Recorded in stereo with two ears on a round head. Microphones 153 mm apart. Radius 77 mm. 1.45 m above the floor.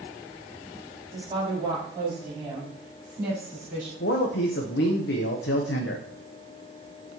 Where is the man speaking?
70° left (ahead or behind), 0.8 m.